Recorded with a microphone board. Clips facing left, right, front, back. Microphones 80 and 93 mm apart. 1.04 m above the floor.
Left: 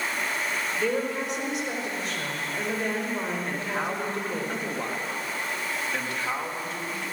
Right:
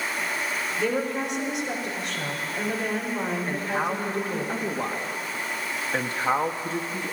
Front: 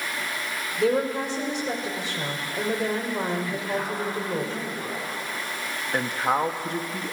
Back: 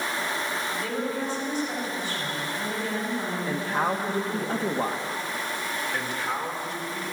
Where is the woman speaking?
Straight ahead, 5 m.